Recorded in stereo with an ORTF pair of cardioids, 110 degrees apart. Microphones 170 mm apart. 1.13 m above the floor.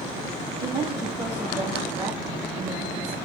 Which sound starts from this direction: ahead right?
A woman speaking, at 0.6 s.